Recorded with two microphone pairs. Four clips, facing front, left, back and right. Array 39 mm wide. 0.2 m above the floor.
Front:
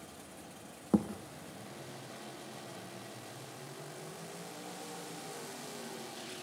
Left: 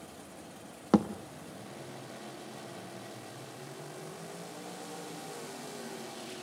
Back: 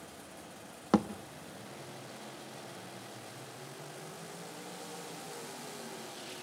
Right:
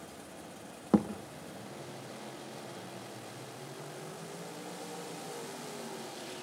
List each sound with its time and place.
0.9 s a thud: 150° left, 1.1 m